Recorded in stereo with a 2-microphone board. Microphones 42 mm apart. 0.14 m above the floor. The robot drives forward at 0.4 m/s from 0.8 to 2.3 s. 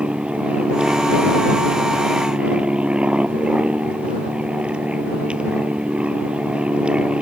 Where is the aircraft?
25° right (ahead or behind).